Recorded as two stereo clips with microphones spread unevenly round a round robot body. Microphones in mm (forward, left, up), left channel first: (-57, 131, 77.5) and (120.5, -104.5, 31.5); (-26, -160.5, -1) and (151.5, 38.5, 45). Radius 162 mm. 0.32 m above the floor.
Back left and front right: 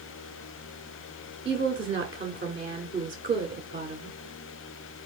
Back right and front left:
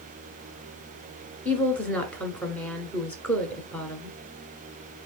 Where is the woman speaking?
80° right, 1.4 m.